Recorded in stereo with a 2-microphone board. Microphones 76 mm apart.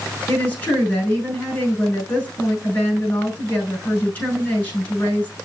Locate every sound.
0.3 s a woman speaking: 20° left (ahead or behind), 6.5 m